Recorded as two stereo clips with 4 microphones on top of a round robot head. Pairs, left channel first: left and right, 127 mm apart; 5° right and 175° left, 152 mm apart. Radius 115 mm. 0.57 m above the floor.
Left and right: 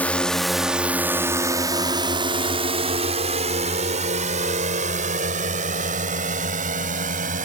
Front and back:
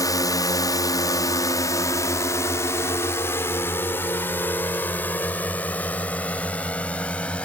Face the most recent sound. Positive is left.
turn(degrees=-85)